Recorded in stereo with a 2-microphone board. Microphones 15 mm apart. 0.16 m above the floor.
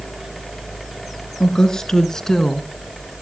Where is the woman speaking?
50° left (ahead or behind), 2.5 m; by 2.7 s 30° left (ahead or behind), 1.5 m.